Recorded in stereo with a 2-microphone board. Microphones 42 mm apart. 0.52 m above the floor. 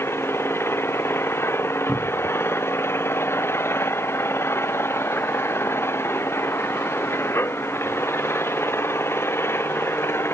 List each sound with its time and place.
0.0 s an engine running: 85° left
1.9 s a cupboard door: 20° right (ahead or behind)